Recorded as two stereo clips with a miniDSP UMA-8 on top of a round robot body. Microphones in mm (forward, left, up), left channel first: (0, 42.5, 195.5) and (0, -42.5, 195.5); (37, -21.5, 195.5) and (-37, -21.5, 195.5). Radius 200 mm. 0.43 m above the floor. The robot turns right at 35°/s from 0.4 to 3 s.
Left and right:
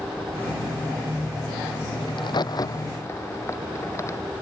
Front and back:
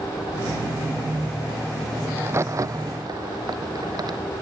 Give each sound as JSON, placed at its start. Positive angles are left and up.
{"t": 2.1, "sound": "a crack", "azimuth_deg": 115}